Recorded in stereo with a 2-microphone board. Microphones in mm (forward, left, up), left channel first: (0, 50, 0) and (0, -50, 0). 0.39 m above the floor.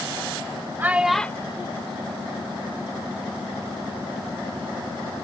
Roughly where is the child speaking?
Right.